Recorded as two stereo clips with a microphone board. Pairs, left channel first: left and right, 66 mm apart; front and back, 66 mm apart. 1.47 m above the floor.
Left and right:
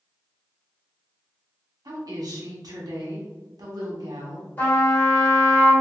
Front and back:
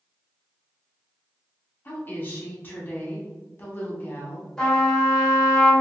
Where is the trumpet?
60° left, 1.3 m.